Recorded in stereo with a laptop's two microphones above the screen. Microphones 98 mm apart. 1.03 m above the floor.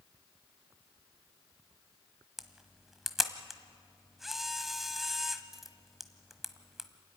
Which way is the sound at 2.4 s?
5° right (ahead or behind).